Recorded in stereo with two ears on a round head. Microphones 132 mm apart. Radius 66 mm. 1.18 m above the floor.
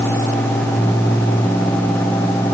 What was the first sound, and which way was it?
Only background noise.